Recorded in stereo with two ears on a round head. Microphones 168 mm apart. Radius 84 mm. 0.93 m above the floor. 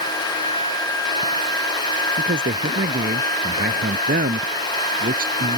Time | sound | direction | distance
2.2 | a man speaking | 50° right (ahead or behind) | ?